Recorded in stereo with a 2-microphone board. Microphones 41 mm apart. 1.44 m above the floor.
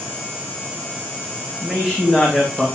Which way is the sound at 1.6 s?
Centre (ahead or behind).